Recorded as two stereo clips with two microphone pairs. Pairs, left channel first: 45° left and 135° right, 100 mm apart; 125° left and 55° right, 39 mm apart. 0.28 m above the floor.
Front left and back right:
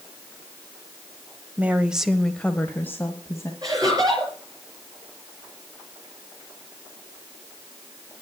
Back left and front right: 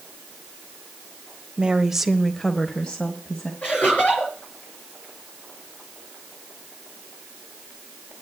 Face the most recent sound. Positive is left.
turn(degrees=170)